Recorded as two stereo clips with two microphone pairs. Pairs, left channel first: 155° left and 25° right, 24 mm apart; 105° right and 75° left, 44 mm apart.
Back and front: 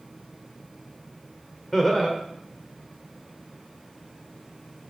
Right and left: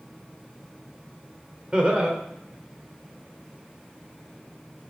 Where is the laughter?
75° left, 1.5 m.